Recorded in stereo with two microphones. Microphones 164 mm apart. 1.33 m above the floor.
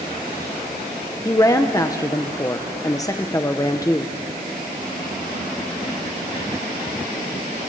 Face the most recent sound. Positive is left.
turn(degrees=20)  # may be behind; listen again after turning